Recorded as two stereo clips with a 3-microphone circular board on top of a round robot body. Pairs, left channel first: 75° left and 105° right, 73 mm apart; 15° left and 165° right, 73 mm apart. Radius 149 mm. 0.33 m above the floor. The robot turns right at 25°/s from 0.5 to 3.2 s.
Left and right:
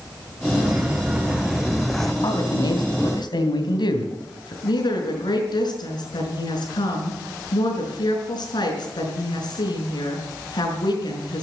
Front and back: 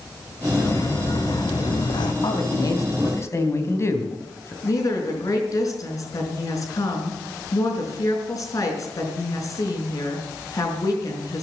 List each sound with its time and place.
0.6 s footsteps: 40° right, 3 m; by 2.1 s 10° right, 1.4 m
2.2 s a man speaking: 40° left, 3 m; by 4.5 s 65° left, 3 m
4.6 s a woman speaking: 55° left, 5 m